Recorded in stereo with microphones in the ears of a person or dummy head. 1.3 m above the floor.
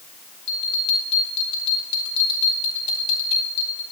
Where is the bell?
40° left (ahead or behind), 6 m.